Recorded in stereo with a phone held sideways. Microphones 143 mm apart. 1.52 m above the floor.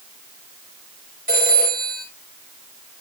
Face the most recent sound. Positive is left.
turn(degrees=-80)